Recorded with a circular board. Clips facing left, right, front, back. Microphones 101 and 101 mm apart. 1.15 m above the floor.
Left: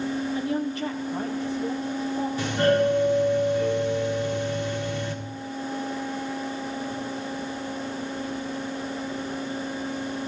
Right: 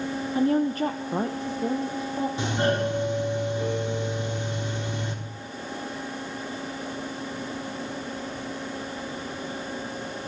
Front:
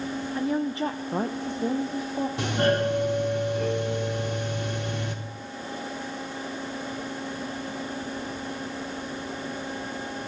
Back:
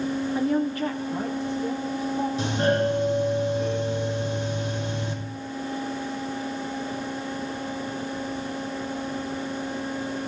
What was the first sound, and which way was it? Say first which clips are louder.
A woman speaking: right 4 dB, back 1 dB; 110° right.